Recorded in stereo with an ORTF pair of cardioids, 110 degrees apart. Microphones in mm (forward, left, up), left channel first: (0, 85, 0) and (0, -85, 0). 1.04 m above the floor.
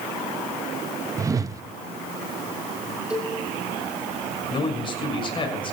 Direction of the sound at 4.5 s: 30° left.